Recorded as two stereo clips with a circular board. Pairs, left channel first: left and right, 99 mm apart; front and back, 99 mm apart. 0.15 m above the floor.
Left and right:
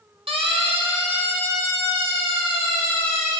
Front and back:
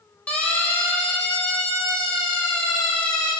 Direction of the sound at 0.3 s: 75° right.